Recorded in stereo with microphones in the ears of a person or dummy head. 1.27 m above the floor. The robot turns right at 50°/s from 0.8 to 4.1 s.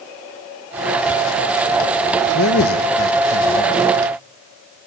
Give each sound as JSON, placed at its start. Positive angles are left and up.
{"t": 2.3, "sound": "a man speaking", "azimuth_deg": 70, "distance_m": 1.6}